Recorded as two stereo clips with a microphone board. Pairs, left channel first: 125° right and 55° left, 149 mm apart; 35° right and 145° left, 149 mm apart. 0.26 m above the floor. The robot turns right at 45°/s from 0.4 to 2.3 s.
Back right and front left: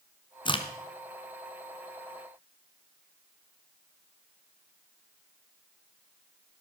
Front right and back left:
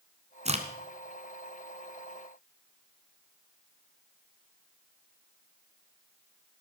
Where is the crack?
Straight behind, 1.6 m; by 0.7 s 170° right, 1.6 m.